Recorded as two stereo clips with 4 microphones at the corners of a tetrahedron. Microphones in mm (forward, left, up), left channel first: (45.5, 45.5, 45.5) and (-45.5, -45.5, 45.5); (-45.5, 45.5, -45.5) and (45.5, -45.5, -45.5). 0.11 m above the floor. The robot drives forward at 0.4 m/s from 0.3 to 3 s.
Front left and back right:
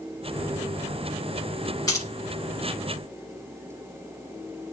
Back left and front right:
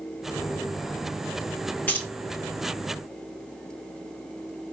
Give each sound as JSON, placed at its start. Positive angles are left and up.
{"t": 1.9, "sound": "keys jangling", "azimuth_deg": 75, "distance_m": 0.9}